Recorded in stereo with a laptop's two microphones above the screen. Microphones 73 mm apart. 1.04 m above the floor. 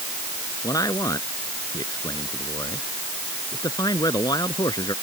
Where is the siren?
I don't hear a siren.